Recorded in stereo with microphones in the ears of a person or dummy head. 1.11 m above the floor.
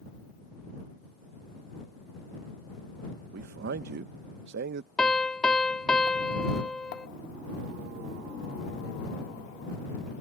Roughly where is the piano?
Centre.